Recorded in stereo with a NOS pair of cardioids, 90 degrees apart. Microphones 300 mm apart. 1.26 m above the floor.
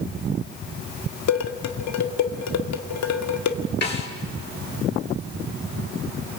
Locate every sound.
1.3 s dishes clattering: 65° left, 1.9 m
3.8 s a snare drum: 35° left, 5 m